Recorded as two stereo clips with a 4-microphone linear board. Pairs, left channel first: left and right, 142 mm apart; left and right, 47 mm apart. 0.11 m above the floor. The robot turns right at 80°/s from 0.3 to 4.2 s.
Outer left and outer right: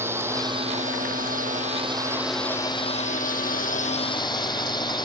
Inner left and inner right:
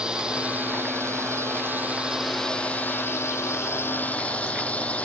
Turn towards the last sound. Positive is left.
turn(degrees=150)